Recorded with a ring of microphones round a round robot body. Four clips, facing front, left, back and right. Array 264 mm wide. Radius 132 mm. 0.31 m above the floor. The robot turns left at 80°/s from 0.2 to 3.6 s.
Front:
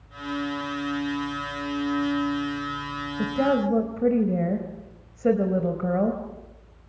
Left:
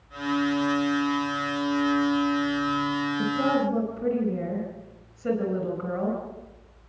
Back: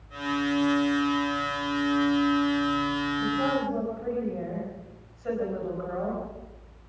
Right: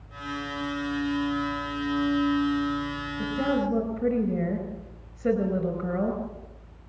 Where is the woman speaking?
15° left, 4 m; by 6.2 s 20° right, 4 m.